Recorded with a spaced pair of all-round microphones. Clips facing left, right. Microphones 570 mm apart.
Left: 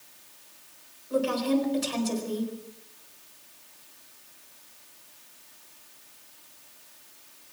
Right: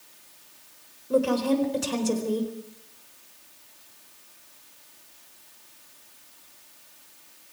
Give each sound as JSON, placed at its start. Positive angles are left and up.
{"t": 1.1, "sound": "a woman speaking", "side_deg": -65, "distance_m": 4.0}